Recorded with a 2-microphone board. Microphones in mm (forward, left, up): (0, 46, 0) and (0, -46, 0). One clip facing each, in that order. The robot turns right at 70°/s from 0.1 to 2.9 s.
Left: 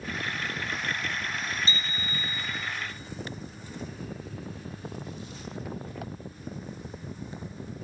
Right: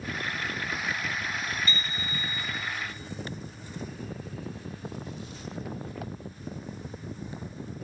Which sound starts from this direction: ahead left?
A bicycle bell, at 1.7 s.